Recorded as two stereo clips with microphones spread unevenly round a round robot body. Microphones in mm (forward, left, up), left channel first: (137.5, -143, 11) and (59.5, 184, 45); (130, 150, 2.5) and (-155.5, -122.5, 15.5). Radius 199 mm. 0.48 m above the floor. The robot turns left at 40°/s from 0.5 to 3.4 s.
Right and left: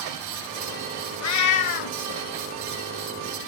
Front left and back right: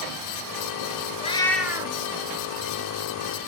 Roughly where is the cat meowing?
Ahead right.